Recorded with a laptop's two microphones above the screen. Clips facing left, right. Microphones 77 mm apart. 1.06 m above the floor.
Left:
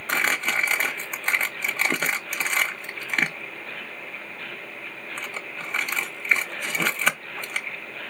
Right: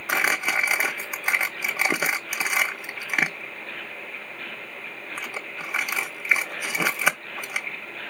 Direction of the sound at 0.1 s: 10° right (ahead or behind).